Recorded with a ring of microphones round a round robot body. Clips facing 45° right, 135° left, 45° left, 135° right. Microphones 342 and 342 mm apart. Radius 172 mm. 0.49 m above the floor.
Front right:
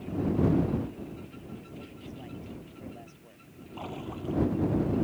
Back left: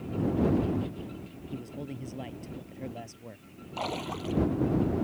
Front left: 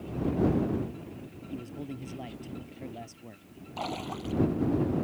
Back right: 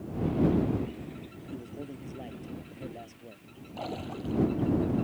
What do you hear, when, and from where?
1.5 s a man speaking: 110° left
3.8 s a splash: 110° left